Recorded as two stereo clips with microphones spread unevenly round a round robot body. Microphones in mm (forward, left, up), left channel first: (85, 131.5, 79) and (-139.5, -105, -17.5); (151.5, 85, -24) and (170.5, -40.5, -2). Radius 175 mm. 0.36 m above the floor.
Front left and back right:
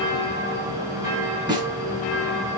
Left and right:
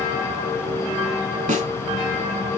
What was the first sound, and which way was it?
A snare drum, 60° right.